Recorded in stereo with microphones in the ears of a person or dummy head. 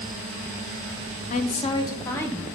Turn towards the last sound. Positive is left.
turn(degrees=10)  # may be behind; listen again after turning